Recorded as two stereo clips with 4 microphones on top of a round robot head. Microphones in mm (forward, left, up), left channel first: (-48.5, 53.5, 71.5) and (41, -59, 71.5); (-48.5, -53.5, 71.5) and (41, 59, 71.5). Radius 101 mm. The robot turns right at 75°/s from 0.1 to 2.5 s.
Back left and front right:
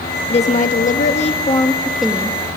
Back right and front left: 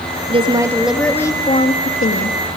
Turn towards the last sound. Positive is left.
turn(degrees=-105)